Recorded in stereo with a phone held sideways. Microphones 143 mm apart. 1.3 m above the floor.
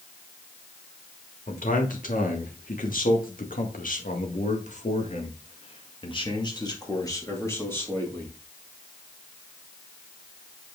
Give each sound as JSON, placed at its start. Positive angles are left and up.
{"t": 1.5, "sound": "a man speaking", "side_deg": 70, "distance_m": 2.5}